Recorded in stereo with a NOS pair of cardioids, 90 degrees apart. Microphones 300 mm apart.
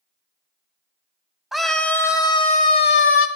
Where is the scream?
Straight ahead, 4 m; by 3.3 s 45° left, 2.5 m.